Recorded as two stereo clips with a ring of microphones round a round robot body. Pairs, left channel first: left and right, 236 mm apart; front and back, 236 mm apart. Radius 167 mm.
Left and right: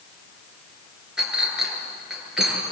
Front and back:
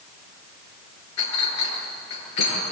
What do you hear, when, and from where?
1.2 s a clink: straight ahead, 7 m